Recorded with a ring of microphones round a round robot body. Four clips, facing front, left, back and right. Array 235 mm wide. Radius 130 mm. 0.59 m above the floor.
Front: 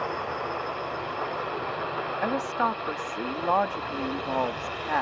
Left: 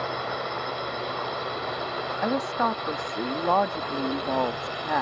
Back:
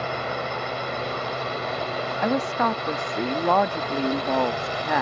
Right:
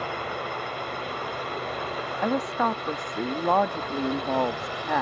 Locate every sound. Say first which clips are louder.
0.0 s a drone: left 1 dB, back 2 dB; 170° left; by 5.0 s 175° left
2.2 s a woman speaking: right 1 dB, back 4 dB; 170° right